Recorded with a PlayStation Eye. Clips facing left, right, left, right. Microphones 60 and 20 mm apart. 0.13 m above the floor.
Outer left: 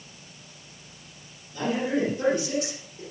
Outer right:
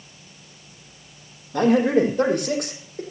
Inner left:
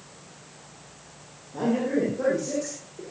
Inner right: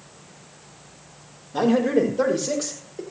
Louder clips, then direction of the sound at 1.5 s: Outer right 9 dB, inner right 5 dB; 65° right (ahead or behind).